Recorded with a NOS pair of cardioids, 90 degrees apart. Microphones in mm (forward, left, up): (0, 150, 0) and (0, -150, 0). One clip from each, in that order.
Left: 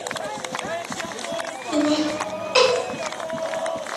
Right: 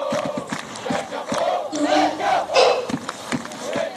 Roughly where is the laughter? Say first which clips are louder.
Left 1 dB; ahead left.